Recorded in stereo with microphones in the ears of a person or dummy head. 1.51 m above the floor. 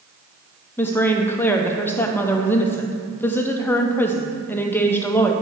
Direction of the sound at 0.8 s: 10° left (ahead or behind).